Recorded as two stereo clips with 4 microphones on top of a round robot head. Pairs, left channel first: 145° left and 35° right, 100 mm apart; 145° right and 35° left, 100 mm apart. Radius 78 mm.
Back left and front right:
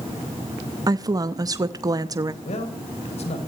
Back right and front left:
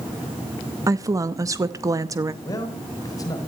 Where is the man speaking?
155° left, 4 m.